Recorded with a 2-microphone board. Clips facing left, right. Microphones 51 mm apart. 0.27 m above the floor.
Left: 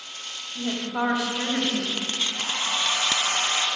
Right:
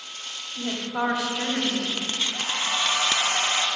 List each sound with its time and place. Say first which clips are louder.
0.6 s a woman speaking: left 1 dB; 5° left (ahead or behind), 1.3 m
2.1 s a hair dryer: even; 25° right (ahead or behind), 2.5 m